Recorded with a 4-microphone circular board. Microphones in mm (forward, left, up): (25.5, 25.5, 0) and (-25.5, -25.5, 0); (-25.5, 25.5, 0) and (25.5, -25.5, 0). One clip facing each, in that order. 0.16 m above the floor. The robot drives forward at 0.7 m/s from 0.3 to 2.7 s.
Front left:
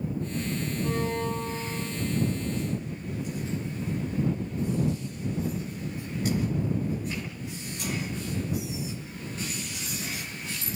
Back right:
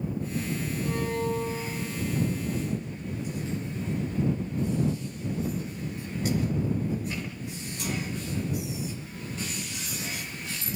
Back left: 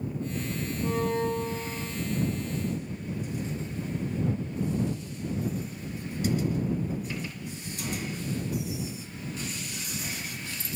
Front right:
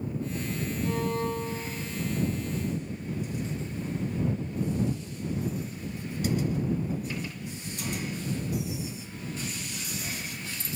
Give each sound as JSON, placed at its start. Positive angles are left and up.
{"t": 0.8, "sound": "a violin", "azimuth_deg": 105, "distance_m": 5.0}